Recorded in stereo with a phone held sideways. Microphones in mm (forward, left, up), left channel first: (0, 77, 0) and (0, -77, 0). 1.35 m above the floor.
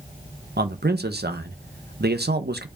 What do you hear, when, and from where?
0.6 s a man speaking: 80° right, 0.9 m